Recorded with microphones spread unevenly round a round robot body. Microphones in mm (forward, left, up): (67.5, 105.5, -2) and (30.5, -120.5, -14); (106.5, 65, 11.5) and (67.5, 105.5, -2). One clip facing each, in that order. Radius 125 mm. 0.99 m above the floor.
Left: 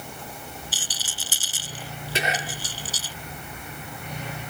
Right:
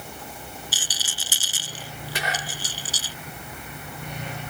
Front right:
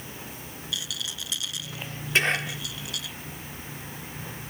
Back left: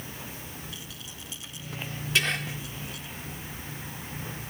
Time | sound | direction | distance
0.7 | a rattle | 85° right | ?
2.1 | whispering | 15° left | ?